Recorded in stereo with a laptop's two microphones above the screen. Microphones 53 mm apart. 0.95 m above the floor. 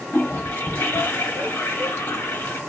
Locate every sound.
0.1 s a toilet flushing: 50° left (ahead or behind), 1.2 m